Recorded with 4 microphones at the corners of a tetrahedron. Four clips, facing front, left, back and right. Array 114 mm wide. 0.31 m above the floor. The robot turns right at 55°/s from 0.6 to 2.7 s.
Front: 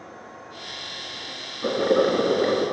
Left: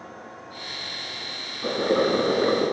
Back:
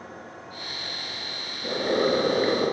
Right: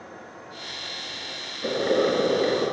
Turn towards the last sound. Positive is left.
turn(degrees=85)